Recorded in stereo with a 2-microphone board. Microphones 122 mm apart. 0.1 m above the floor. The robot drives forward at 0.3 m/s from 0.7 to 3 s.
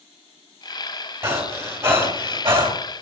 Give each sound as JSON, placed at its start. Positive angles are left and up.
{"t": 1.2, "sound": "breathing", "side_deg": -25, "distance_m": 2.5}